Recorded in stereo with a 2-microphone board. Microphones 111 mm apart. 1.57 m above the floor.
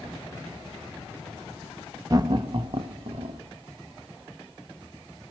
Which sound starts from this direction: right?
Laughter, at 2.1 s.